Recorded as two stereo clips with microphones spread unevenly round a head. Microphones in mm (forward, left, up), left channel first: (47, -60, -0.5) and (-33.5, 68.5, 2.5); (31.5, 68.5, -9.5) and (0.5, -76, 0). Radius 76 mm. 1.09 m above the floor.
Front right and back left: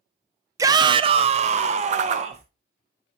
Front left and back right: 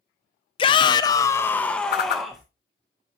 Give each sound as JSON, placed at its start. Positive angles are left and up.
{"t": 0.6, "sound": "a shout", "azimuth_deg": 65, "distance_m": 0.6}
{"t": 1.9, "sound": "a whoosh", "azimuth_deg": 85, "distance_m": 0.6}